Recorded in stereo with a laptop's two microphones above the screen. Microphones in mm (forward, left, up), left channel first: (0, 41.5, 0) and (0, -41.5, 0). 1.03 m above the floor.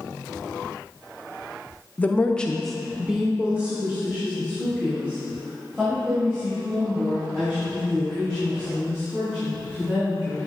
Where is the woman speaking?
20° left (ahead or behind), 0.7 m; by 10.5 s 25° right (ahead or behind), 4.5 m.